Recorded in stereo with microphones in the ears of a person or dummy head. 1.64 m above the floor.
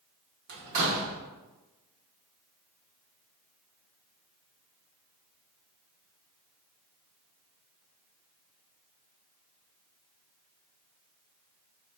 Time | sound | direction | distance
0.5 | a door slam | 60° right (ahead or behind) | 1.0 m